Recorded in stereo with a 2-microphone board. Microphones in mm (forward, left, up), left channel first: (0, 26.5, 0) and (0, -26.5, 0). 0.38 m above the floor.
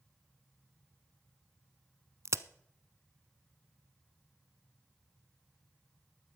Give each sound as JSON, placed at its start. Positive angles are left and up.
{"t": 2.2, "sound": "a crack", "side_deg": -65, "distance_m": 0.6}